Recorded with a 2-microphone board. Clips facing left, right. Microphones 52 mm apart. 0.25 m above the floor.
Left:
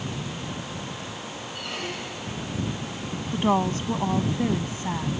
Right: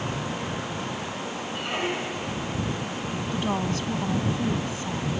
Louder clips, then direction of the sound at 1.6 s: Right 5 dB; 20° right (ahead or behind).